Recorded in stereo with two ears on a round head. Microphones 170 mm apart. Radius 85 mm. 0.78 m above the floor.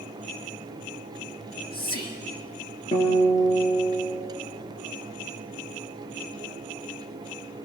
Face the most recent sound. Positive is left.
turn(degrees=30)  # may be behind; listen again after turning